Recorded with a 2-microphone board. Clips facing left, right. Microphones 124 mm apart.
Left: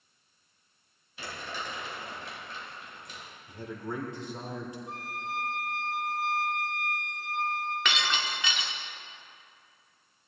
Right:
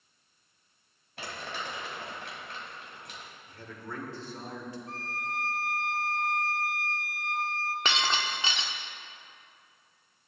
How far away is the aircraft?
No aircraft in this recording.